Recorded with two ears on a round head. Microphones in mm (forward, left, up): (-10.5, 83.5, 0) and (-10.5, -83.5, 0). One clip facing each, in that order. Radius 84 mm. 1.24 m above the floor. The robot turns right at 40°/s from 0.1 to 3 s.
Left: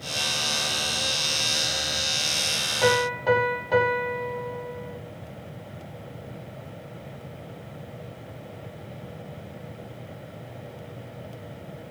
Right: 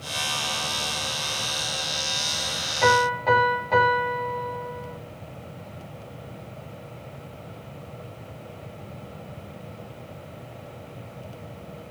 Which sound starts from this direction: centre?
A piano, at 2.8 s.